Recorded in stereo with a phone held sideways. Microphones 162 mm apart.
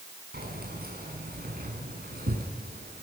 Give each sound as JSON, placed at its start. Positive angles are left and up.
{"t": 0.3, "sound": "keys jangling", "side_deg": -75, "distance_m": 6.5}